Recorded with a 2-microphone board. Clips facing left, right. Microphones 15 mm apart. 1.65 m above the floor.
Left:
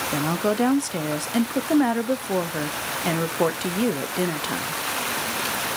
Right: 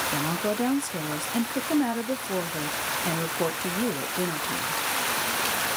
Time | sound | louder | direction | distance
0.1 | a woman speaking | left 4 dB | 30° left (ahead or behind) | 0.9 m